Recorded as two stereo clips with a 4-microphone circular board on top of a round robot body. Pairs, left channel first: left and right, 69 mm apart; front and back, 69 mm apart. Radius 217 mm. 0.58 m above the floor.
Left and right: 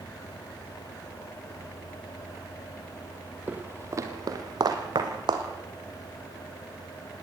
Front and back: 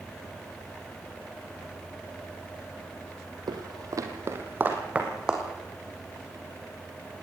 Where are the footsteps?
160° right, 1.8 m; by 5.4 s 100° right, 3 m.